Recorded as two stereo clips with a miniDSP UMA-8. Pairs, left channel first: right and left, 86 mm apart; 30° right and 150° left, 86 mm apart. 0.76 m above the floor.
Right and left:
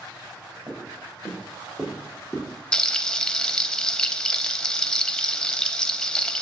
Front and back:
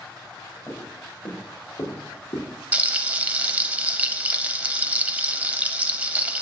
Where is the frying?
160° right, 0.6 m.